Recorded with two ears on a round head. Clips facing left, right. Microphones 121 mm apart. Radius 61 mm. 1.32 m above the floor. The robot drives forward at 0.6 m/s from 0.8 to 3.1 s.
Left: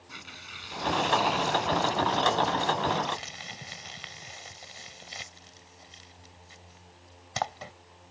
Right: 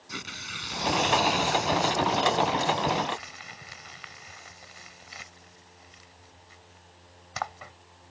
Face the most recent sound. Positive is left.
turn(degrees=35)  # may be behind; listen again after turning